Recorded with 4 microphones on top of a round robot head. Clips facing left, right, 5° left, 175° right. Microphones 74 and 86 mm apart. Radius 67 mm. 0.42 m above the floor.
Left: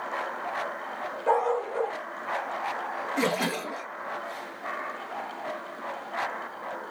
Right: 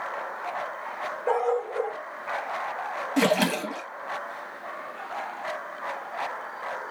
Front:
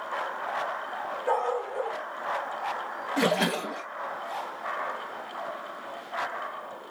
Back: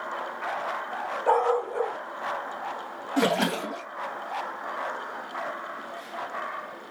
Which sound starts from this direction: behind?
A dog barking, at 1.3 s.